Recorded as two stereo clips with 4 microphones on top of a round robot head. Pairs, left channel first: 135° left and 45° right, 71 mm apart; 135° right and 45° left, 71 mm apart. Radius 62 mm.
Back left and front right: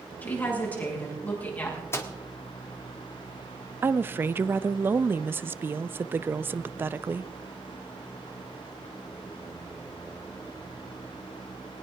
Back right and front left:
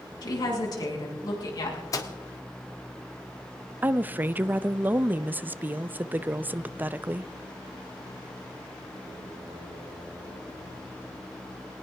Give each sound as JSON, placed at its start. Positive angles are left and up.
{"t": 0.2, "sound": "a woman speaking", "azimuth_deg": -160, "distance_m": 6.0}
{"t": 1.9, "sound": "a microwave", "azimuth_deg": -175, "distance_m": 1.7}
{"t": 3.8, "sound": "a woman speaking", "azimuth_deg": -5, "distance_m": 0.6}